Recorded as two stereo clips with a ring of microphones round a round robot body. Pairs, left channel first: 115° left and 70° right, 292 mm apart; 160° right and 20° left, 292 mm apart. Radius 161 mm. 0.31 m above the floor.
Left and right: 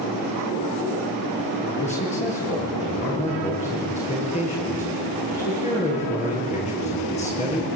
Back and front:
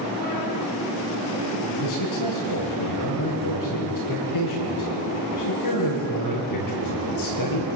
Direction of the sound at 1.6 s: Straight behind.